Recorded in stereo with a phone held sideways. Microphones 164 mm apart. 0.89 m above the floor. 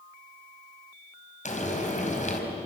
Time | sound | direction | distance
1.4 | frying | 50° left (ahead or behind) | 4 m